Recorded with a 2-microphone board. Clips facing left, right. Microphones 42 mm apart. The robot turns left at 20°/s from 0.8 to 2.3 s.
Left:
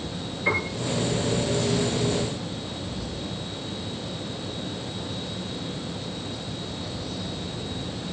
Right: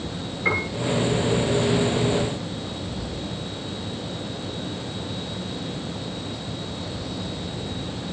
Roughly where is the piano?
Right.